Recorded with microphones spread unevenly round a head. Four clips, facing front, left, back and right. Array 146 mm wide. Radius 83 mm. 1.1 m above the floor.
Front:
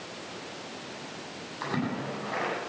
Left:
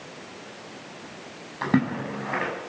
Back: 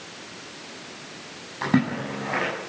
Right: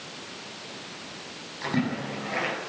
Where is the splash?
135° left, 7.5 m.